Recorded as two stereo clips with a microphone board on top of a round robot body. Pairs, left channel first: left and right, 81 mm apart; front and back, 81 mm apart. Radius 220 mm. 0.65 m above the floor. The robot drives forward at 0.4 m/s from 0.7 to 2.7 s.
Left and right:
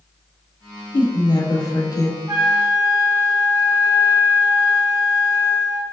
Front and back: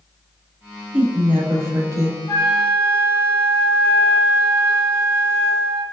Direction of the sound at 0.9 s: 105° left.